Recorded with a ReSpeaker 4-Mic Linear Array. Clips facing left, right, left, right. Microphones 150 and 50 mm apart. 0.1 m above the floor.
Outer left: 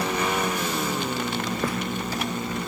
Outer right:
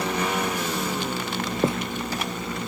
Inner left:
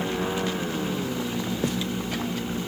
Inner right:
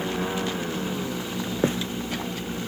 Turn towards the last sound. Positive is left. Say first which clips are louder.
# outer right 7 dB, inner right 5 dB
turn(degrees=-25)  # may be behind; listen again after turning